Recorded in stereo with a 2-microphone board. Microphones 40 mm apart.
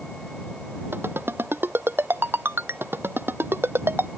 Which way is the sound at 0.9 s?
70° right (ahead or behind).